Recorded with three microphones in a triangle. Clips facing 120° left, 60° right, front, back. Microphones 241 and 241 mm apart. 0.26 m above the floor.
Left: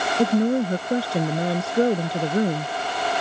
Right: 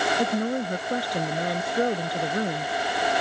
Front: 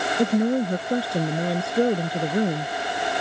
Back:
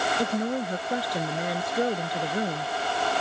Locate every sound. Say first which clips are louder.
0.2 s a woman speaking: left 10 dB, front 9 dB; 60° left